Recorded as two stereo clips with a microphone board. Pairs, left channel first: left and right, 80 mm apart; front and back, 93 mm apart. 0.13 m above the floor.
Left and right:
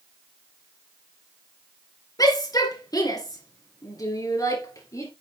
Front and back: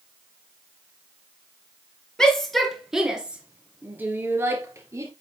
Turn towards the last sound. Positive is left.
turn(degrees=130)